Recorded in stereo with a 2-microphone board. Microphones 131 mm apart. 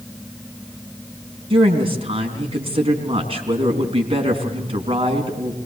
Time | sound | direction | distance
1.5 | a woman speaking | 45° right (ahead or behind) | 4 m